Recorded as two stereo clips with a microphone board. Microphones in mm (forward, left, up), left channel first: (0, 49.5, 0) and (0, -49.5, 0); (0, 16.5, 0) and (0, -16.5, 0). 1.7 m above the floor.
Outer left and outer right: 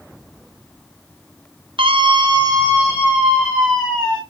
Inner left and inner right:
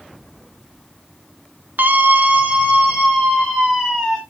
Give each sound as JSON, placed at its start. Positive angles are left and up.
{"t": 1.8, "sound": "a scream", "side_deg": -60, "distance_m": 0.8}